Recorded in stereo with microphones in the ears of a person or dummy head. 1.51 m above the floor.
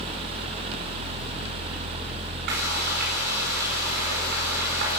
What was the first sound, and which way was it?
Frying, 55° right (ahead or behind).